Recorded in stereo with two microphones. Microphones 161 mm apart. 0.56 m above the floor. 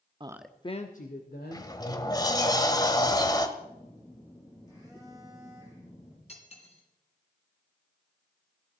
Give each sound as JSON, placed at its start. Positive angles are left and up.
{"t": 0.2, "sound": "a woman speaking", "side_deg": -30, "distance_m": 0.6}
{"t": 1.5, "sound": "a sliding door", "side_deg": 25, "distance_m": 1.1}
{"t": 3.6, "sound": "a phone buzzing", "side_deg": 20, "distance_m": 7.5}
{"t": 6.3, "sound": "cutlery clinking", "side_deg": 40, "distance_m": 3.0}